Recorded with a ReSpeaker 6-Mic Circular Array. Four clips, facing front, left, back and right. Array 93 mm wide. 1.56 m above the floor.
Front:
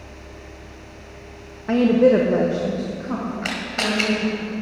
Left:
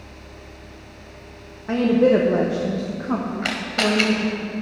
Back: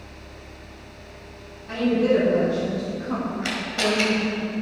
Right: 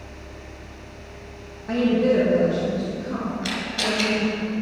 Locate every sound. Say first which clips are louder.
1.7 s a woman speaking: left 3 dB, front 5 dB; 15° left, 1.2 m; by 4.3 s 95° left, 3 m
3.4 s a camera shutter: left 4 dB, even; 65° left, 1.9 m